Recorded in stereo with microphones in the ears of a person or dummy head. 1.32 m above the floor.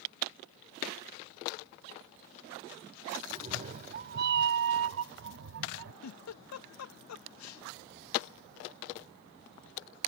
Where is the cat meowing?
30° right (ahead or behind); by 5.9 s 65° right (ahead or behind).